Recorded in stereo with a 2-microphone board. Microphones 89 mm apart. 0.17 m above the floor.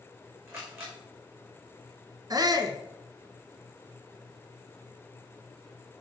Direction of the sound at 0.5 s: 30° right (ahead or behind).